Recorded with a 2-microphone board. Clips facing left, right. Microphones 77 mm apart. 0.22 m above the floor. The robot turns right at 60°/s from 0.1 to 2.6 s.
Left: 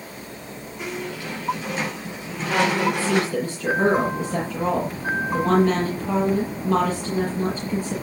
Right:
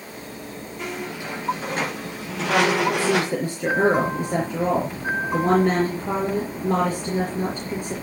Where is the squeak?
175° left, 7 m; by 3.4 s 75° right, 7 m.